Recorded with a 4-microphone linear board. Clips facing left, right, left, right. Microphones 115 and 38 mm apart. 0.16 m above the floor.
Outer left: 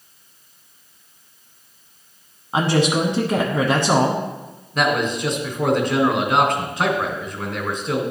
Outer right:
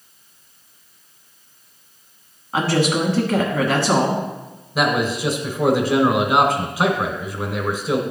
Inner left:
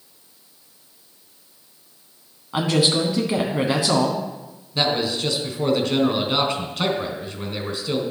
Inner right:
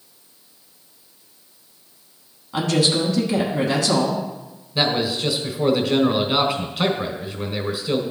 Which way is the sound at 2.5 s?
20° left (ahead or behind).